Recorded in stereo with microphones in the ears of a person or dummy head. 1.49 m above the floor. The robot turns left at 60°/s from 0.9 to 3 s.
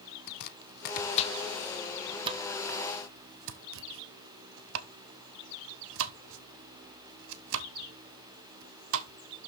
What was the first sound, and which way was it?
Chopping, 55° left (ahead or behind).